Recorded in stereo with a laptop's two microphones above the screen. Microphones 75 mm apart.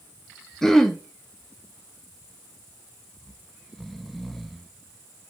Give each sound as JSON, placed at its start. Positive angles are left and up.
{"t": 0.6, "sound": "throat clearing", "side_deg": 5, "distance_m": 0.8}
{"t": 3.2, "sound": "snoring", "side_deg": 0, "distance_m": 0.7}